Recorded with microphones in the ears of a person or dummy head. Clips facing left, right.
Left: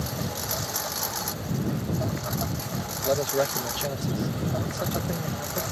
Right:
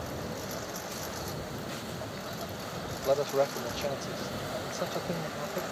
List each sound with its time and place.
0.0 s a lawn mower: 75° left (ahead or behind); by 5.7 s 60° left (ahead or behind)
3.0 s a man speaking: 15° left (ahead or behind)